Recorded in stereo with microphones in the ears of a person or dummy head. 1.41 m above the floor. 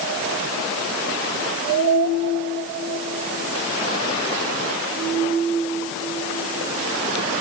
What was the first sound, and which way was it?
Only background noise.